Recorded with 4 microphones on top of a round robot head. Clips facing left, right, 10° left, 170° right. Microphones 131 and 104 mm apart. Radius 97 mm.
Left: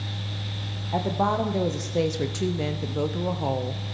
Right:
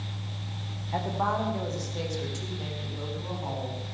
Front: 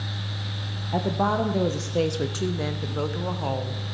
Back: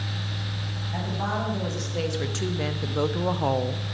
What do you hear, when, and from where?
0.9 s a woman speaking: 30° left, 1.3 m; by 4.0 s 135° left, 1.4 m